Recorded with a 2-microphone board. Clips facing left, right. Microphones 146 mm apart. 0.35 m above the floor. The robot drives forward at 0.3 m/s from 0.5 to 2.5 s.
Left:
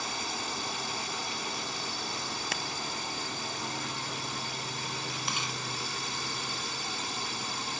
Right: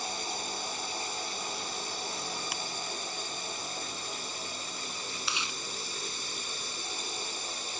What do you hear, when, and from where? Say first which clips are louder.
0.0 s a drone: left 1 dB; 65° left (ahead or behind)
2.5 s ticking: left 3 dB; 80° left
5.3 s chewing: left 1 dB; 50° left (ahead or behind)